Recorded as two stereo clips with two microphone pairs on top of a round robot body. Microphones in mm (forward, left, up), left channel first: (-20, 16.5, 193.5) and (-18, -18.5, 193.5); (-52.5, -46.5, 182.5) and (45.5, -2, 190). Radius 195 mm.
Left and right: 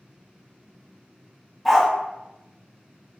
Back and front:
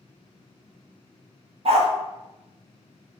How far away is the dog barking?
About 0.7 m.